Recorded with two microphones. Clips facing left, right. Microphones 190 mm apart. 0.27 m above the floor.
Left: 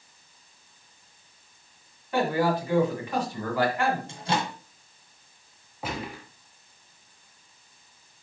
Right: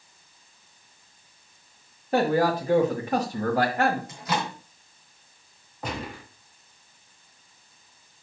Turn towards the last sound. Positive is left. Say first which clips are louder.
# even
turn(degrees=5)  # may be behind; listen again after turning